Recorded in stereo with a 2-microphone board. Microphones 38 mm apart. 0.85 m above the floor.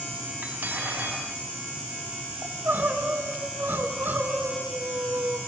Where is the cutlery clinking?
50° right (ahead or behind), 3.5 m.